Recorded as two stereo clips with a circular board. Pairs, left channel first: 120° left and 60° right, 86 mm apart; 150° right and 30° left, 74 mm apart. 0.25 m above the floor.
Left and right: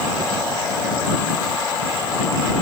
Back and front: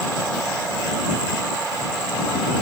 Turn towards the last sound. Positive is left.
No sound to turn to.